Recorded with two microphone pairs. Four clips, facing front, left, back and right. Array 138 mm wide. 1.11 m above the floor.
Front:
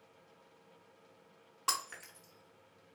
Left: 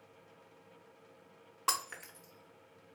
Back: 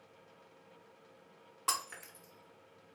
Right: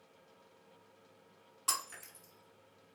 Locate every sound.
1.7 s breaking glass: 85° left, 0.8 m